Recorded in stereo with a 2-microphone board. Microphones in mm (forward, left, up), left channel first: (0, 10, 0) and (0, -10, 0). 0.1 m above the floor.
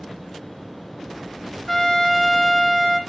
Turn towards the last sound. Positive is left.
turn(degrees=15)  # may be behind; listen again after turning